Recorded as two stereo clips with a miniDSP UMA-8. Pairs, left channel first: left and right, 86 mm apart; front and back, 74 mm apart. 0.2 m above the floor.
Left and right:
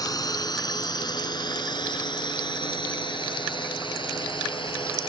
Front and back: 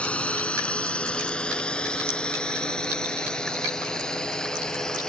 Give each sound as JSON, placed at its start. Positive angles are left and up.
{"t": 0.0, "sound": "a drone", "azimuth_deg": 70}